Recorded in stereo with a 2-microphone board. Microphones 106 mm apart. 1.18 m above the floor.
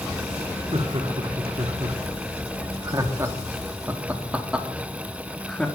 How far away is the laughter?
About 3 m.